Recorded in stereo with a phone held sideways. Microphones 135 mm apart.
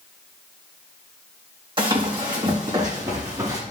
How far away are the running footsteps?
About 3.5 m.